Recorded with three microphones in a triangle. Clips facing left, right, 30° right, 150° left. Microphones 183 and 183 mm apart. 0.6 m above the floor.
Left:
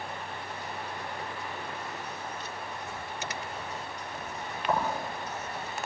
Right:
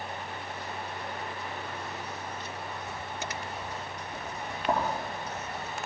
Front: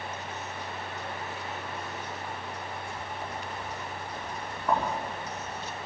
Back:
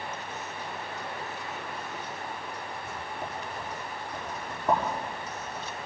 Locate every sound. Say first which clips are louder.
2.8 s writing: right 1 dB, even; 140° right, 7 m